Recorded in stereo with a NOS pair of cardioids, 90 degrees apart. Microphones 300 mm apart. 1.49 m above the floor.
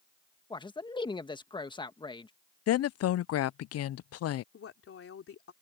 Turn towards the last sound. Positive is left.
turn(degrees=50)